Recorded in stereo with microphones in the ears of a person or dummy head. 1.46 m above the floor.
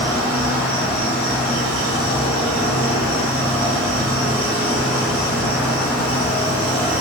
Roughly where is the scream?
I don't hear a scream.